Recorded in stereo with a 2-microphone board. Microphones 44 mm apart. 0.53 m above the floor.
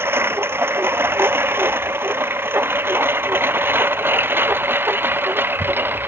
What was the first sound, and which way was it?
A lawn mower, 70° right (ahead or behind).